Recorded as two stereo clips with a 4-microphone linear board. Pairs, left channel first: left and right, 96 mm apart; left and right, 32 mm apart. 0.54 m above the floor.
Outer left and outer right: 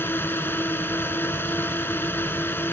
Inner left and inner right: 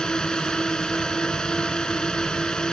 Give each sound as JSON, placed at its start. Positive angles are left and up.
{"t": 0.0, "sound": "a drone", "side_deg": 25}